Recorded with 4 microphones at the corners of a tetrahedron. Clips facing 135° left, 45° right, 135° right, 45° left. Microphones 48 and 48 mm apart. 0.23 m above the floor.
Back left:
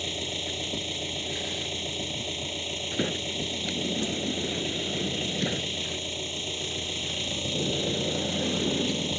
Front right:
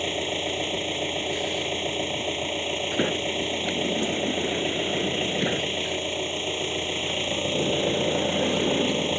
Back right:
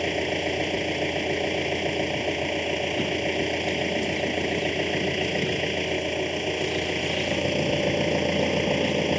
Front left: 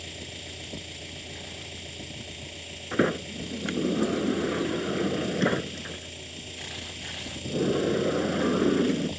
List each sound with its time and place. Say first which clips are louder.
0.0 s an engine running: front right 6 dB, back right 16 dB; 100° right
2.9 s a sliding door: front right 4 dB, back right 1 dB; 25° left